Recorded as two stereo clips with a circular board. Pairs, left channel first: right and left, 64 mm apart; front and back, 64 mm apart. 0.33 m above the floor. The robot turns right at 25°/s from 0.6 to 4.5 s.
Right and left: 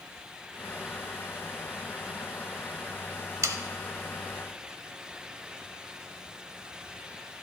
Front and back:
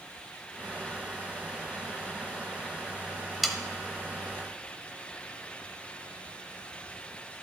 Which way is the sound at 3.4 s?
90° left.